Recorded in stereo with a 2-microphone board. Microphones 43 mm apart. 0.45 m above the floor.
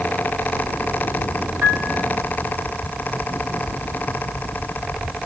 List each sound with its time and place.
1.6 s a piano: 75° right (ahead or behind), 4 m